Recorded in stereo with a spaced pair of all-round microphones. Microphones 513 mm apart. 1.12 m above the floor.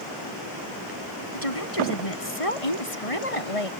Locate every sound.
1.3 s a woman speaking: 85° left; by 3.7 s 80° left